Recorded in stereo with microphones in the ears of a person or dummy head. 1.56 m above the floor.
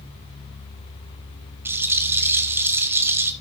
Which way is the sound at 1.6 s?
10° right (ahead or behind).